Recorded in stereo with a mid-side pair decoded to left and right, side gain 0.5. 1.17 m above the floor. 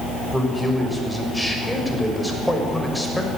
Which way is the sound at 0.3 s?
5° left.